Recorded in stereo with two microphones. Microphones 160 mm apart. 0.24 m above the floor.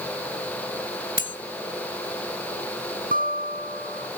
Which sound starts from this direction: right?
A guitar, at 3.1 s.